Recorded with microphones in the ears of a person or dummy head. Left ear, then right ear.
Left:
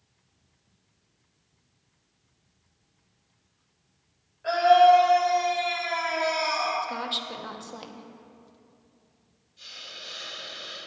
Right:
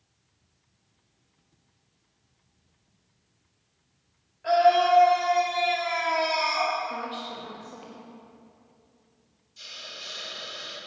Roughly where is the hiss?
Right.